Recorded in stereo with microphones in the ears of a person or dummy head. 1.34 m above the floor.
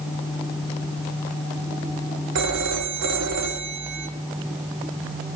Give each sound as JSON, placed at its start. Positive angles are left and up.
{"t": 2.4, "sound": "a phone ringing", "side_deg": -75, "distance_m": 1.5}